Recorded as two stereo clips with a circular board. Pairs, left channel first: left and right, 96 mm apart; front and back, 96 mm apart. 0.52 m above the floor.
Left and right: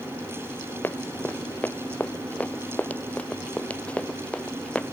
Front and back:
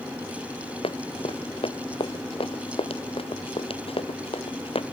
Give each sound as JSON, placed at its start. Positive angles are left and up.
{"t": 0.8, "sound": "running footsteps", "azimuth_deg": 20}